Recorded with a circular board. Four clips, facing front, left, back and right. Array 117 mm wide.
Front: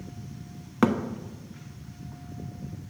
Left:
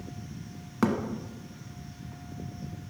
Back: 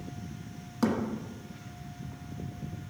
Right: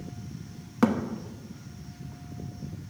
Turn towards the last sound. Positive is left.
turn(degrees=-5)